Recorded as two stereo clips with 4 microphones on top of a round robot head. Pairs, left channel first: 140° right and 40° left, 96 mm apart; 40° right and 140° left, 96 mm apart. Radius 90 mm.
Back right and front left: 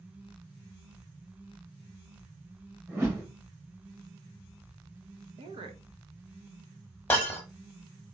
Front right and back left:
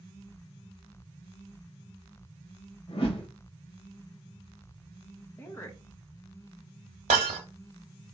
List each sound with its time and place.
2.9 s a whoosh: 25° right, 1.9 m
5.4 s a woman speaking: 30° left, 1.3 m
7.1 s breaking glass: 145° left, 0.9 m